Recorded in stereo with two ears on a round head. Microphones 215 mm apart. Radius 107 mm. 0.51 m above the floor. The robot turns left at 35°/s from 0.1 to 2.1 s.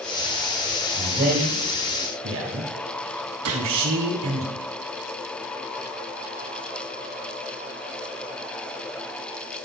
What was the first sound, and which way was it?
A man speaking, 25° right (ahead or behind).